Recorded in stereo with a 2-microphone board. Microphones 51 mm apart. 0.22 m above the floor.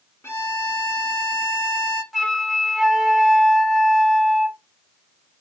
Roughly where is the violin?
Left.